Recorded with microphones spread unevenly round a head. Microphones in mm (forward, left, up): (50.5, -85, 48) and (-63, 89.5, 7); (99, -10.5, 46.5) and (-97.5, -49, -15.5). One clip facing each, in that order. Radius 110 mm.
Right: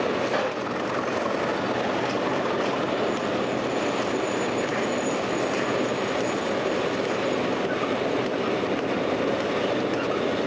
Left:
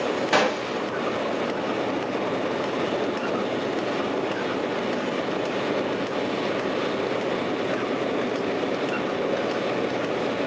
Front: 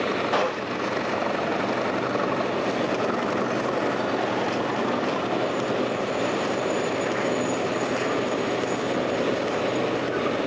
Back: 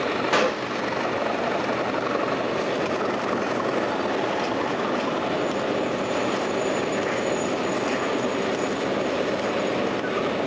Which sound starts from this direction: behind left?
A gunshot, at 0.3 s.